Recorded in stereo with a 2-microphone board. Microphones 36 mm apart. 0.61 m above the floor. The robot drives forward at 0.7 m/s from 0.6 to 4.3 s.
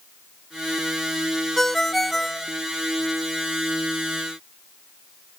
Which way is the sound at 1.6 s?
10° left (ahead or behind).